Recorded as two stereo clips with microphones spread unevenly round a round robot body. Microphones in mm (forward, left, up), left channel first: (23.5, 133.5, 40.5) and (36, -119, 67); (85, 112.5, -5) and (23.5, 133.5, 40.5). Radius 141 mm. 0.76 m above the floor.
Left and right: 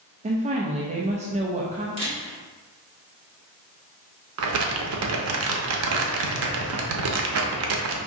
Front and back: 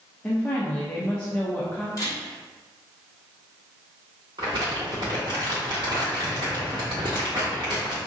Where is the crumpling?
125° right, 0.6 m.